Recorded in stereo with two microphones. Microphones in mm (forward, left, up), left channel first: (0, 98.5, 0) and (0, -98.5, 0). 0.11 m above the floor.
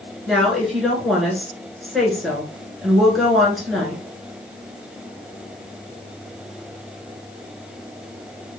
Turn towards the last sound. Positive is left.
turn(degrees=0)  # may be behind; listen again after turning